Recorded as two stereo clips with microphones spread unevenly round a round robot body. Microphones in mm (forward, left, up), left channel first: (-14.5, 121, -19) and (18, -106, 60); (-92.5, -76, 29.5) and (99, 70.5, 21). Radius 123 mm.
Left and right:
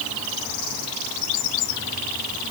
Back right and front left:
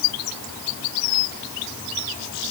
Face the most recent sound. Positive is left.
No sound to turn to.